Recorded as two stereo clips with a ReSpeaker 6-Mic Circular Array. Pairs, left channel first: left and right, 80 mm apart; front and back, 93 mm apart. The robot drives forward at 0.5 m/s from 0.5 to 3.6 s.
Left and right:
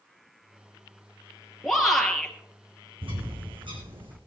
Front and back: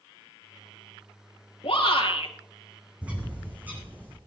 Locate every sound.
1.6 s a shout: 5° left, 3.5 m
3.0 s a bird: 100° right, 3.5 m; by 4.2 s 105° right, 3.5 m